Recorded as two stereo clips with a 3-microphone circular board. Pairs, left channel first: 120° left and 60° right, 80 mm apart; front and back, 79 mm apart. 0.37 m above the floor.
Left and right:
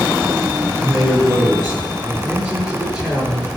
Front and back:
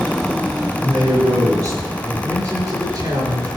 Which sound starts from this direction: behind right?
A man speaking, at 0.8 s.